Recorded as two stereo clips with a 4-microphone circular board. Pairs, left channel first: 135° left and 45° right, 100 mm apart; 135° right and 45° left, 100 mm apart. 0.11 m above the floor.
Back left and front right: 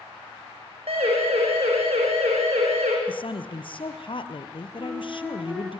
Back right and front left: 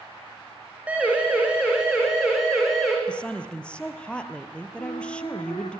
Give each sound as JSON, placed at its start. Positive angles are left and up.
{"t": 0.9, "sound": "a siren", "azimuth_deg": -30, "distance_m": 6.5}
{"t": 3.1, "sound": "a woman speaking", "azimuth_deg": 145, "distance_m": 2.0}
{"t": 4.8, "sound": "a flute", "azimuth_deg": -130, "distance_m": 3.5}